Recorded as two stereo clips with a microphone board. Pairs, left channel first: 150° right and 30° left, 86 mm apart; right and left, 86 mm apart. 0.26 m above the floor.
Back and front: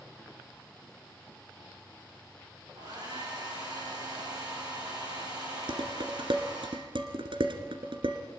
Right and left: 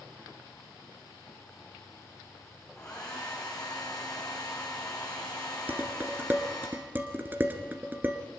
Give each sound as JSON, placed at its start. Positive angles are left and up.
{"t": 2.8, "sound": "a hair dryer", "azimuth_deg": -5, "distance_m": 8.5}
{"t": 5.7, "sound": "dishes clattering", "azimuth_deg": 25, "distance_m": 2.0}